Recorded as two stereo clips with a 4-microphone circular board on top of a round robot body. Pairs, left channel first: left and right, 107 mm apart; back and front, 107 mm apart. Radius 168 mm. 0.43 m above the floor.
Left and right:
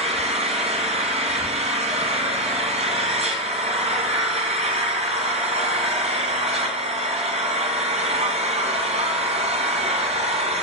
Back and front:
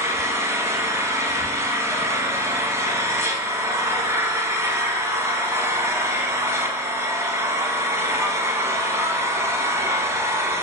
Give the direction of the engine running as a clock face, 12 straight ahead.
2 o'clock.